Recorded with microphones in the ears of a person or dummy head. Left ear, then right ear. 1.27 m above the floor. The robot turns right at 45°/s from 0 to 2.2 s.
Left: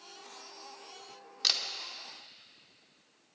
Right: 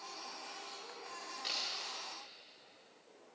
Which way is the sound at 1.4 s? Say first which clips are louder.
Left 11 dB; 45° left (ahead or behind).